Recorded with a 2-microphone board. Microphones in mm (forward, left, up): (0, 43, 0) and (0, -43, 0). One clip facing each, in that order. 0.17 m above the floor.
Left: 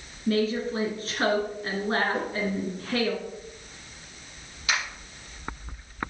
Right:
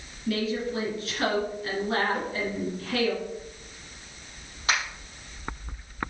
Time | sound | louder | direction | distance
0.3 | a woman speaking | left 3 dB | 35° left (ahead or behind) | 2.5 m
2.1 | a whoosh | left 1 dB | 70° left (ahead or behind) | 3 m
4.7 | a finger snap | right 1 dB | 35° right (ahead or behind) | 4.5 m